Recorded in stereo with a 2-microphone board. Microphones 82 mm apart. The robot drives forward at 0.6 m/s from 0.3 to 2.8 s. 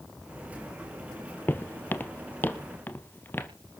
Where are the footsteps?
25° left (ahead or behind), 1.0 m.